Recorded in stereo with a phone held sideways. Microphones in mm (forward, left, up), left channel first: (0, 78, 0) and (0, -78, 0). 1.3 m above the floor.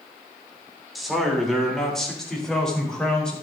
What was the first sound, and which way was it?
A man speaking, centre (ahead or behind).